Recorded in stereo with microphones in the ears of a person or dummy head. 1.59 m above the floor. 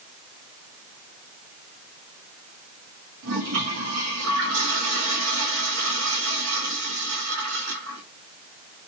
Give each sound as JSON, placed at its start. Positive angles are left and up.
{"t": 3.2, "sound": "a toilet flushing", "side_deg": -70, "distance_m": 1.0}